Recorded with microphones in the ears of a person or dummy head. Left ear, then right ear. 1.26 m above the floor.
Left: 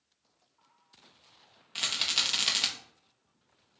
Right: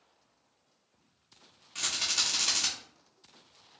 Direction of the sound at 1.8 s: 35° left (ahead or behind).